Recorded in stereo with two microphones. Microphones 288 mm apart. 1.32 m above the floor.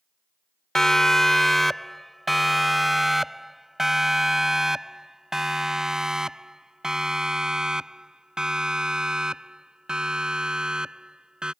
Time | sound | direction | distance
0.8 | a siren | centre (ahead or behind) | ?